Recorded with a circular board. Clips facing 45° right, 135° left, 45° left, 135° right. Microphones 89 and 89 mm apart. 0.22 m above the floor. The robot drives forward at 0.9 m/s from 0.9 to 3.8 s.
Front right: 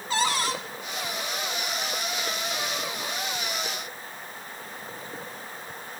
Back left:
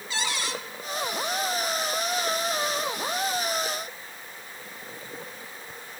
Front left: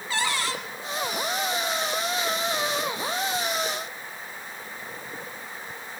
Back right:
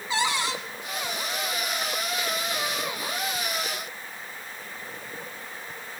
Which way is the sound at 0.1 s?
70° right.